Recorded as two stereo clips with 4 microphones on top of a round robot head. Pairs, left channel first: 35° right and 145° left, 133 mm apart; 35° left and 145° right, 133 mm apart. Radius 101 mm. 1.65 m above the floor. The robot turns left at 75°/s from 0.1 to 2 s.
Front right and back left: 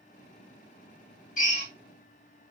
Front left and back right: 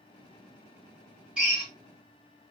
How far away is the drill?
About 3 m.